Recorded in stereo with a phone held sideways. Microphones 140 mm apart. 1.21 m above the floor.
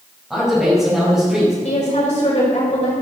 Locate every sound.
0.3 s a man speaking: 5° right (ahead or behind), 6 m
1.6 s a woman speaking: 50° left (ahead or behind), 5.5 m